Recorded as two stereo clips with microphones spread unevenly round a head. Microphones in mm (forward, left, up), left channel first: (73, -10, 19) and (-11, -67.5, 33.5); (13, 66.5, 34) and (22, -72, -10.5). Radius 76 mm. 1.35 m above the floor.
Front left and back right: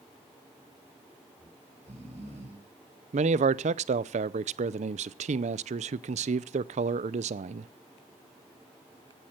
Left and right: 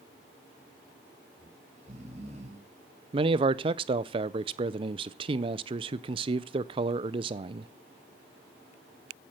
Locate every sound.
1.4 s snoring: 135° right, 5 m
3.1 s a man speaking: 140° right, 0.5 m